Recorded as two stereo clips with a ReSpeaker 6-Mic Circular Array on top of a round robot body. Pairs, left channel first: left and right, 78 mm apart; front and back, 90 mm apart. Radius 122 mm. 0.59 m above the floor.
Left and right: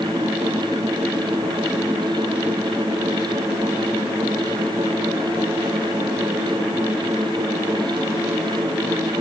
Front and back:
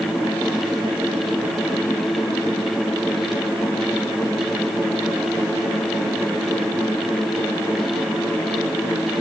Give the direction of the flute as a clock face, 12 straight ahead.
I don't hear a flute.